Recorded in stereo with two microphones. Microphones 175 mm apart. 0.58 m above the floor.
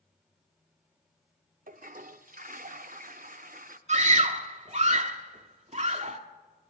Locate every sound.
1.7 s a toilet flushing: 60° right (ahead or behind), 0.6 m
3.9 s a scream: 45° right (ahead or behind), 1.0 m